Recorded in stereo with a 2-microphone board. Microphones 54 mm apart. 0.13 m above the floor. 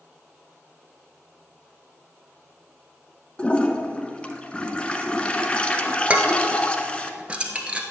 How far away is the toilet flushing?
About 0.9 m.